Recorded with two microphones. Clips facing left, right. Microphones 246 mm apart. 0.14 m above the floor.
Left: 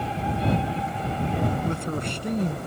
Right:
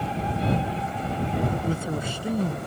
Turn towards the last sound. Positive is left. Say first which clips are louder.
# even
turn(degrees=-5)  # may be behind; listen again after turning